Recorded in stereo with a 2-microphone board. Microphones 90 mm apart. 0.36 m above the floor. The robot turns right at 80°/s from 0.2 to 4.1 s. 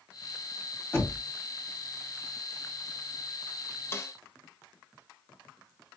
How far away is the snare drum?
About 0.7 m.